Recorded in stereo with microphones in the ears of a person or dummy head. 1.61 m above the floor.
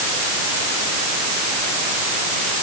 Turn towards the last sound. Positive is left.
No sound to turn to.